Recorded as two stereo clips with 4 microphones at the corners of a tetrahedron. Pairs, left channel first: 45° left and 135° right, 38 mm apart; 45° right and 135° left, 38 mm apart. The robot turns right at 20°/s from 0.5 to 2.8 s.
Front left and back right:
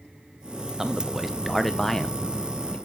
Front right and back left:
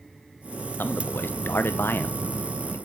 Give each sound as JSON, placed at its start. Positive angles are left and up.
{"t": 0.8, "sound": "a man speaking", "azimuth_deg": -60, "distance_m": 1.4}